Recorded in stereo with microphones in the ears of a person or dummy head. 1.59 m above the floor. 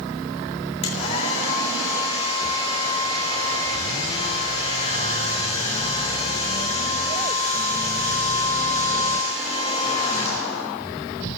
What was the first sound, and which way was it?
A hair dryer, 30° left (ahead or behind).